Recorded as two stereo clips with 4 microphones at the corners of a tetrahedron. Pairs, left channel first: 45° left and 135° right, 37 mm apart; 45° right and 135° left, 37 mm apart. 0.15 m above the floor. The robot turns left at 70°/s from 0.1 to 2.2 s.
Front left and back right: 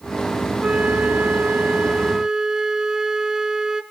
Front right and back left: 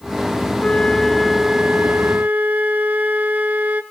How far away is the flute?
About 0.8 m.